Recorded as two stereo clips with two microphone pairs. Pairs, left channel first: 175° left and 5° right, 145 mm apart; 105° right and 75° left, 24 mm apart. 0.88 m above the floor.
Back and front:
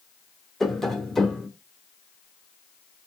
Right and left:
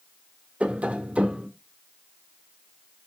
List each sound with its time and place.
0.6 s tapping: 90° left, 1.1 m